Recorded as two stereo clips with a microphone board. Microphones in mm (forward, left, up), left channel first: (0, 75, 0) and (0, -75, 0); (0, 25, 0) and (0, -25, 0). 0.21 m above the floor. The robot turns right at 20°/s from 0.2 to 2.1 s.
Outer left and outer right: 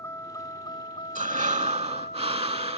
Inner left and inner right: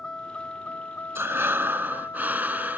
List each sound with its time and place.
0.0 s a vehicle: 20° left; by 2.8 s 55° left
1.1 s breathing: 55° right (ahead or behind); by 2.8 s 40° right (ahead or behind)